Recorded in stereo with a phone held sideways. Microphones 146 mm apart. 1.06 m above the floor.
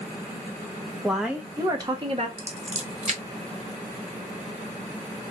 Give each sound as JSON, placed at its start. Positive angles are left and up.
{"t": 1.0, "sound": "a woman speaking", "side_deg": 0, "distance_m": 1.2}
{"t": 2.4, "sound": "scissors", "side_deg": -50, "distance_m": 1.5}